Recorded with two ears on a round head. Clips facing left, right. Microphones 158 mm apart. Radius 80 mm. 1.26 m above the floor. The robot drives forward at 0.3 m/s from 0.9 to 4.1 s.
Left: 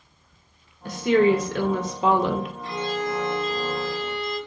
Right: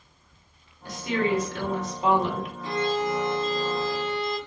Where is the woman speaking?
50° left (ahead or behind), 0.9 m; by 2.5 s 60° left (ahead or behind), 0.7 m.